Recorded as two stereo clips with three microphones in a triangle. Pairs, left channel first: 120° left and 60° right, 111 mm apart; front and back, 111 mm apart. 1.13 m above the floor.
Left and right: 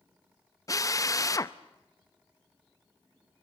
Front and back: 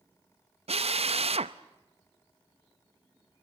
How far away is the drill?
About 0.7 m.